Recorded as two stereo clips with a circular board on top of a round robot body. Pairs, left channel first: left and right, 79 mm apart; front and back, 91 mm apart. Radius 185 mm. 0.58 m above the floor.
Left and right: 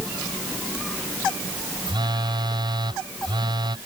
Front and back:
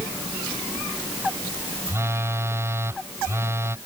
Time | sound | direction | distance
1.9 | a phone buzzing | 120° right | ?